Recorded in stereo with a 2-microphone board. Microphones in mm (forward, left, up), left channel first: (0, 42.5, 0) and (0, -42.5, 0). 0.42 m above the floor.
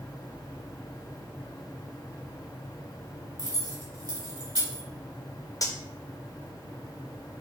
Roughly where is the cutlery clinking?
Left.